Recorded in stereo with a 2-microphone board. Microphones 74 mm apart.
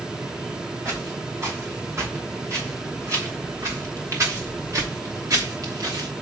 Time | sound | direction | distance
0.8 | footsteps | 35° right (ahead or behind) | 6 m